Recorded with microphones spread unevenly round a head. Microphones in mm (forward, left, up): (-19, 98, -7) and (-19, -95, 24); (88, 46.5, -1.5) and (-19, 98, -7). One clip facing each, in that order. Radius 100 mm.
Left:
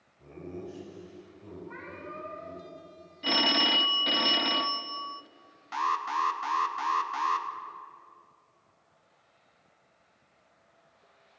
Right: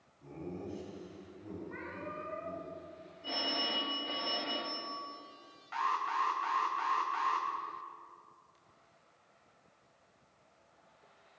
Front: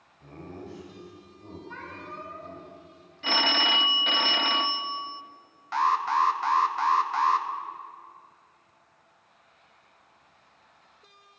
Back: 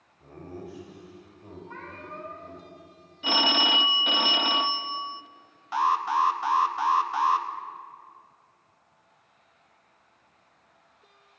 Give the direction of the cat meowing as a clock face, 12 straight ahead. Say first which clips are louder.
Left 1 dB, even; 9 o'clock.